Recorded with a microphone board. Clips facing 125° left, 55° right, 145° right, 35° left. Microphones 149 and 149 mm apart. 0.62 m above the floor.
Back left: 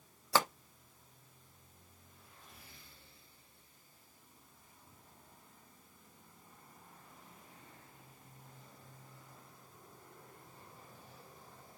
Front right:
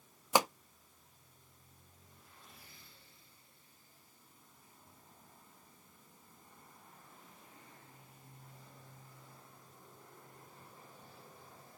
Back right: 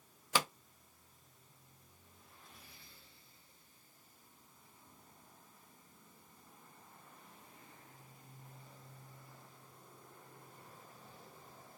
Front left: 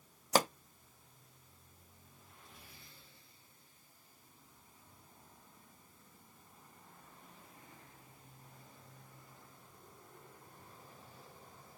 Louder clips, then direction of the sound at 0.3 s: Front right 2 dB, front left 6 dB; 10° left.